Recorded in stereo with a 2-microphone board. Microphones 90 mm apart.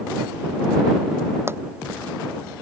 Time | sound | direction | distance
1.5 | a pop | 25° right (ahead or behind) | ?